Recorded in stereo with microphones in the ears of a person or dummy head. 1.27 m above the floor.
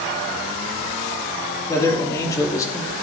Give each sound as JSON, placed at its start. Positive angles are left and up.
{"t": 1.7, "sound": "a man speaking", "side_deg": 20, "distance_m": 3.0}